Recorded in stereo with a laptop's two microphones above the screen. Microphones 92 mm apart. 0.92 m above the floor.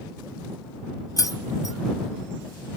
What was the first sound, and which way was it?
Keys jangling, 40° left (ahead or behind).